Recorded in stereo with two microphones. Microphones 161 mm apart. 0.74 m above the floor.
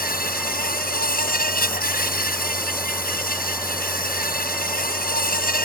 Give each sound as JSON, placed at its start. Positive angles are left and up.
{"t": 0.0, "sound": "an insect", "side_deg": 65}